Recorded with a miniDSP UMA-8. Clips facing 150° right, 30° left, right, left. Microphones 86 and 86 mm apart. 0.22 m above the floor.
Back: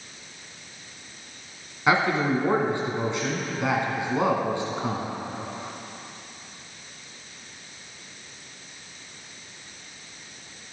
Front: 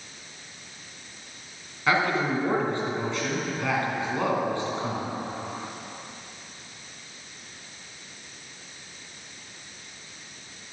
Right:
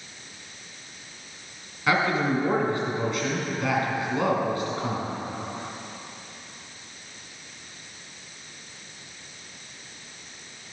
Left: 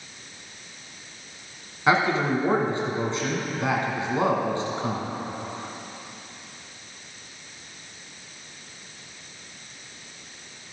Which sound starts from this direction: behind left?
A man speaking, at 1.9 s.